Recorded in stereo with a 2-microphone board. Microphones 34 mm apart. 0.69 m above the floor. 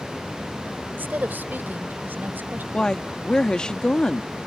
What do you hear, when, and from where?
0.9 s a woman speaking: 75° right (ahead or behind)
2.7 s a woman speaking: 25° left (ahead or behind)